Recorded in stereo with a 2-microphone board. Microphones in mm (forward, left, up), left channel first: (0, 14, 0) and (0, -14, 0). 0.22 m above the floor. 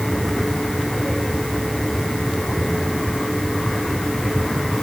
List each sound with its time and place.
Only background noise.